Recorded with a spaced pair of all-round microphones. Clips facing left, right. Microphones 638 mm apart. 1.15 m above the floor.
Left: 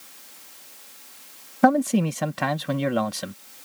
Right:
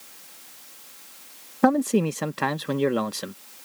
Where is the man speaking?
15° left (ahead or behind).